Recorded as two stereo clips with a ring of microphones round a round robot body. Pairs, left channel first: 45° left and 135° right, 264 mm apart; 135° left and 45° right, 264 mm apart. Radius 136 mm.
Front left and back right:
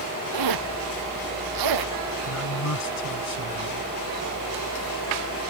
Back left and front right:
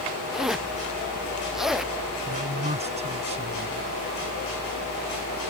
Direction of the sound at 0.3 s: 135° right.